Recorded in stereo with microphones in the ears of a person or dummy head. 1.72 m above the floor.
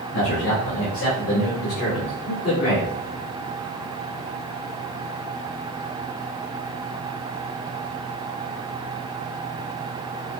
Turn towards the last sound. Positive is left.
turn(degrees=35)  # may be behind; listen again after turning